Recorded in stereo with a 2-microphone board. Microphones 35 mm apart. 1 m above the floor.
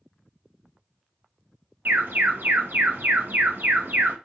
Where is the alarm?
65° right (ahead or behind), 0.7 m.